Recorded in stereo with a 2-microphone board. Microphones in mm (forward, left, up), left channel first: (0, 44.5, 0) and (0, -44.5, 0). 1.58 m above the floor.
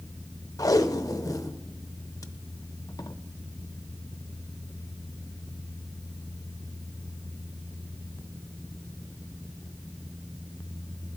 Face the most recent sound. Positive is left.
turn(degrees=40)  # may be behind; listen again after turning